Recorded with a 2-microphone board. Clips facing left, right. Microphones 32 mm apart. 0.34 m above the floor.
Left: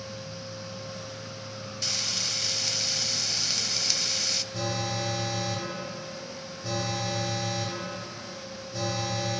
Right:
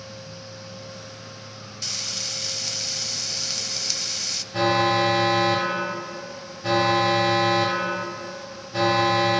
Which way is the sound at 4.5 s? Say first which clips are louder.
Right 11 dB; 45° right (ahead or behind).